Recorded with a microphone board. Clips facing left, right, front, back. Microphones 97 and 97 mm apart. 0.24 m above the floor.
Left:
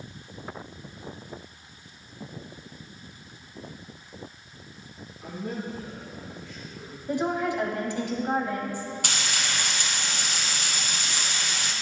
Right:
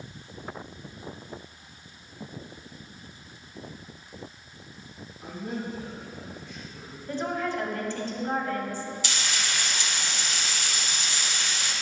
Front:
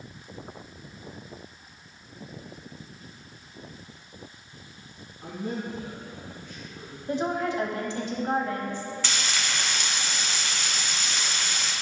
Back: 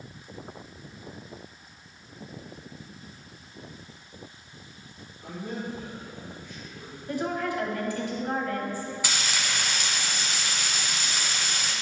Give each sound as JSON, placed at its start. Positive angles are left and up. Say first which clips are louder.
{"t": 5.2, "sound": "a man speaking", "louder": "even, front 2 dB", "azimuth_deg": -15, "distance_m": 3.0}
{"t": 7.1, "sound": "a woman speaking", "louder": "left 3 dB, front 2 dB", "azimuth_deg": 35, "distance_m": 1.2}
{"t": 9.0, "sound": "frying", "louder": "left 1 dB, even", "azimuth_deg": 100, "distance_m": 2.0}